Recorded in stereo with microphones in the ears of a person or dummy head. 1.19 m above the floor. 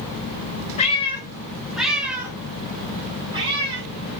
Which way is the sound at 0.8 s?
35° left (ahead or behind).